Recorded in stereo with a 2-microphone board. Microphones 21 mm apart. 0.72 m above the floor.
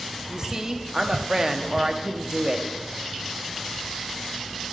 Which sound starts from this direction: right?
A woman speaking, at 0.3 s.